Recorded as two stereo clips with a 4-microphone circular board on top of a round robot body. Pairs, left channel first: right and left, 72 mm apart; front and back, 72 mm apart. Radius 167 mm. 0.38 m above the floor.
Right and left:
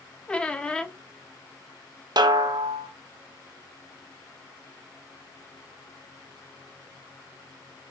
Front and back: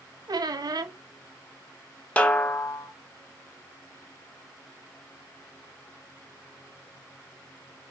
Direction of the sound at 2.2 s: 75° left.